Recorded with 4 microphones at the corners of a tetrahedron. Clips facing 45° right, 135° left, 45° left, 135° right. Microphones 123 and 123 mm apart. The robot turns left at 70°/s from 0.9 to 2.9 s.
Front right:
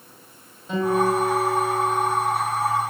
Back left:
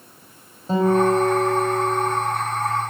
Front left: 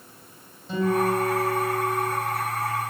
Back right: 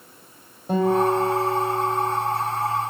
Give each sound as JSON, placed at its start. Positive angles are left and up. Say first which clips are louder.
{"t": 0.7, "sound": "a guitar", "louder": "back left 3 dB, back right 4 dB", "azimuth_deg": -170, "distance_m": 6.0}